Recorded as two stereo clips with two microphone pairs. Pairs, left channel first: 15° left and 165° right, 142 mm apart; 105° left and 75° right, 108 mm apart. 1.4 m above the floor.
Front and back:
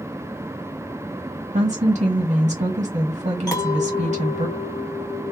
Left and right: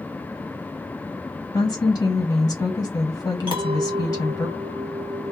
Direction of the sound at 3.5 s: 50° right.